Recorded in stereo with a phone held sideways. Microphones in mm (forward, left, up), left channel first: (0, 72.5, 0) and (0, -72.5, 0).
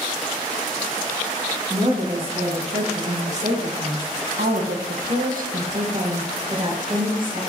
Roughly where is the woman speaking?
Right.